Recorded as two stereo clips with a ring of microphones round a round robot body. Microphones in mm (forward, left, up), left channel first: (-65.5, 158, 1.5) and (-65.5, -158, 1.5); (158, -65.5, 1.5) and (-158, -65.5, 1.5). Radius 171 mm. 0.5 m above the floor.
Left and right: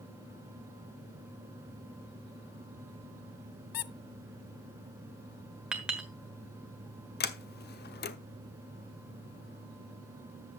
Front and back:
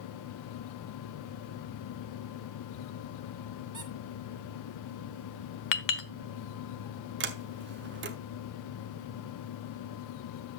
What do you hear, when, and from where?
3.7 s a squeak: 100° left, 0.7 m
5.7 s a clink: 5° right, 1.3 m
7.2 s a sliding door: 135° left, 1.0 m